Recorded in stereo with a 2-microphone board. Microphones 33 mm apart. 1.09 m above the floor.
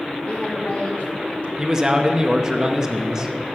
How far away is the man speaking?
About 0.8 m.